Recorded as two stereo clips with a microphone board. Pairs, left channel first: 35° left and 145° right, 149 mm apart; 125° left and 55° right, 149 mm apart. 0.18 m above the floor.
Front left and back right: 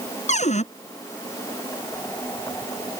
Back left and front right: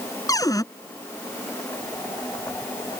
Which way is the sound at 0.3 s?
60° left.